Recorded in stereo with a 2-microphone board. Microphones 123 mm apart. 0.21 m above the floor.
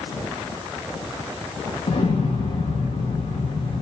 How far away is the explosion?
About 5.5 m.